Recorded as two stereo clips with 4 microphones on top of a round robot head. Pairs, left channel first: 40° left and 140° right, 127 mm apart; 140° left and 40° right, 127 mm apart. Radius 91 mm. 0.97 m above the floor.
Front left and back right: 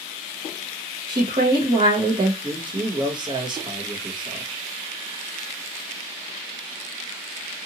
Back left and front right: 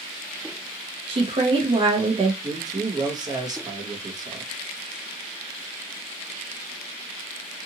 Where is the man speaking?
95° right, 1.1 m.